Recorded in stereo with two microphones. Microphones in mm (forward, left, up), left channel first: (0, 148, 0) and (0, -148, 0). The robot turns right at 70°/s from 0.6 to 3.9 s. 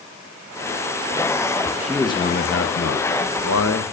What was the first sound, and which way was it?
A man speaking, 5° right.